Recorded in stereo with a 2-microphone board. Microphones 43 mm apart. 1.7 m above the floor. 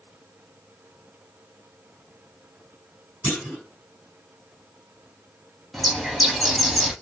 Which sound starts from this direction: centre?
A bird, at 5.7 s.